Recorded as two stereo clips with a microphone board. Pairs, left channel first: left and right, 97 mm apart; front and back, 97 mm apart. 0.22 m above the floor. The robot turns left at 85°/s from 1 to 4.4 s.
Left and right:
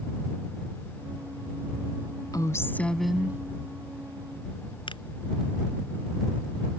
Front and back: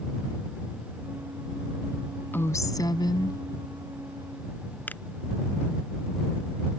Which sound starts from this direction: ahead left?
A woman speaking, at 2.3 s.